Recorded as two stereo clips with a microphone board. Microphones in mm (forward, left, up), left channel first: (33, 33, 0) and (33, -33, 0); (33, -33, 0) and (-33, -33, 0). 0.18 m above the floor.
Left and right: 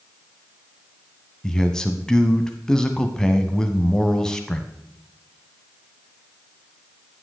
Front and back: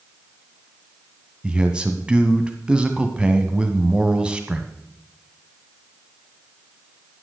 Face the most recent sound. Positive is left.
turn(degrees=145)